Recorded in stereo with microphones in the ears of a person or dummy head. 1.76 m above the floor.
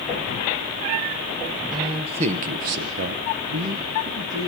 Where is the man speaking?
20° right (ahead or behind), 1.4 m; by 4.5 s 30° right (ahead or behind), 2 m.